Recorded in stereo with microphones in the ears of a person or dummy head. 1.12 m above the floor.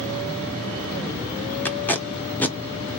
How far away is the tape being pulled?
About 0.6 m.